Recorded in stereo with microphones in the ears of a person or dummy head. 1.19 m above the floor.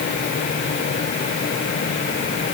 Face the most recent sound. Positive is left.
No sound to turn to.